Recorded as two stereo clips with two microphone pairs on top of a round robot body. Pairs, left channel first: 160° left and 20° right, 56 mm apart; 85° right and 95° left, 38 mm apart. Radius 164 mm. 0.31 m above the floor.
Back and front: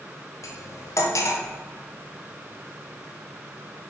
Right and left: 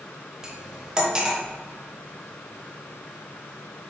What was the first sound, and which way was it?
Cutlery clinking, 170° left.